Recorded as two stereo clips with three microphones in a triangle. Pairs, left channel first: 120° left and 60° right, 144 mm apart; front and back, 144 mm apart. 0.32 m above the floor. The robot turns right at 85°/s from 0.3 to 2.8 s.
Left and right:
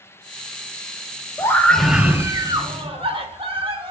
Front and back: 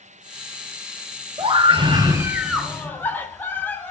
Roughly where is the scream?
Behind.